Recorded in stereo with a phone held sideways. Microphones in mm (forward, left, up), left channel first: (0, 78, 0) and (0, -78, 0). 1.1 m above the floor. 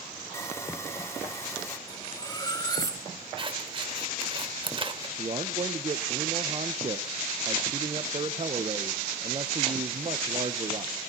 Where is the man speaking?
40° right (ahead or behind), 0.8 m.